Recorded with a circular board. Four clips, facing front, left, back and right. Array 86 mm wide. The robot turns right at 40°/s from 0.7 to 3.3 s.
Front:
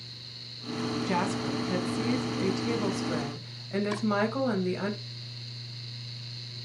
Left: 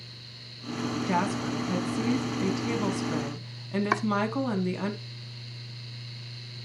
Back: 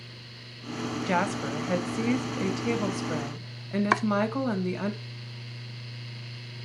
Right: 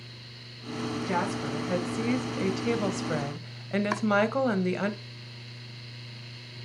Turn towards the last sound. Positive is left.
turn(degrees=165)